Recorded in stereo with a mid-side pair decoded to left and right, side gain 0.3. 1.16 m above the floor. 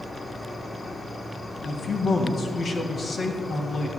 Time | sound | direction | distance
0.0 | an insect | 35° left | 2 m
1.6 | a man speaking | 65° left | 1.9 m